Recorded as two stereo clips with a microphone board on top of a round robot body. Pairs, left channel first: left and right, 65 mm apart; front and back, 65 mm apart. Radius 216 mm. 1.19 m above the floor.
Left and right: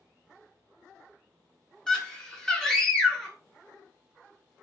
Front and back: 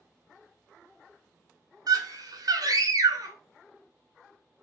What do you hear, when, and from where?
1.9 s a scream: 170° left, 1.2 m